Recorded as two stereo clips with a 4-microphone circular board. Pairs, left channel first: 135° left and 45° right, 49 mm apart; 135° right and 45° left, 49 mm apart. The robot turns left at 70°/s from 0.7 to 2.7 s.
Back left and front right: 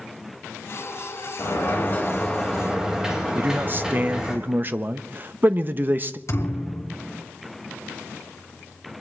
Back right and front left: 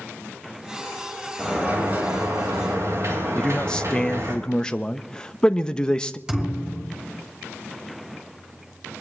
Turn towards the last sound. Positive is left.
turn(degrees=125)